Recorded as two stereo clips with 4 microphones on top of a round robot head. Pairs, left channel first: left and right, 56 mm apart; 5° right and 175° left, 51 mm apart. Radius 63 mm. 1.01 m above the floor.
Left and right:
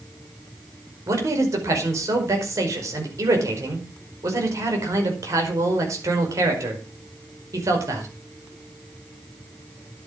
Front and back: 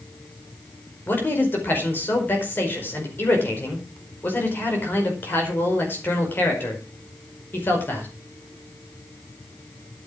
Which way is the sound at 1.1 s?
60° right.